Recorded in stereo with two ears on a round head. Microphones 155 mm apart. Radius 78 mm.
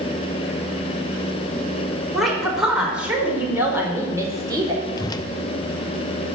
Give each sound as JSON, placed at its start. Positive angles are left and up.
{"t": 2.1, "sound": "a woman speaking", "side_deg": 0, "distance_m": 5.0}
{"t": 5.0, "sound": "a whoosh", "side_deg": 20, "distance_m": 0.7}